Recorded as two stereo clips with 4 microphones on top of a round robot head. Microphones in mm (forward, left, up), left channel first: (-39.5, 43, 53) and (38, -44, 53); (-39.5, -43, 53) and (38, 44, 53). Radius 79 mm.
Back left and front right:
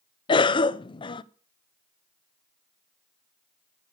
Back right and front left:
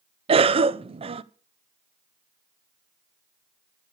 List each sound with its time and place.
0.3 s a cough: 85° left, 0.7 m